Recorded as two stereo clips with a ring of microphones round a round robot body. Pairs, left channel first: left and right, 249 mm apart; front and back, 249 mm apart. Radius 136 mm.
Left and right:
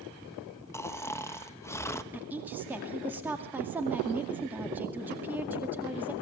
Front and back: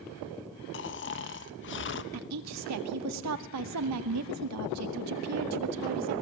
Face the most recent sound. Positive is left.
turn(degrees=-175)